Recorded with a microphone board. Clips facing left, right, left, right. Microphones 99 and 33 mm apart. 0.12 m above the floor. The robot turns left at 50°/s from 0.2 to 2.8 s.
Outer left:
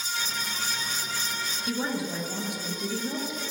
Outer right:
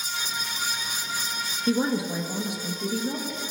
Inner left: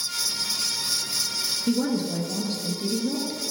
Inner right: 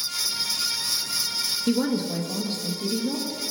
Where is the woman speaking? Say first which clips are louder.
Outer right 6 dB, even; 135° right, 1.7 m; by 3.4 s 170° left, 1.7 m.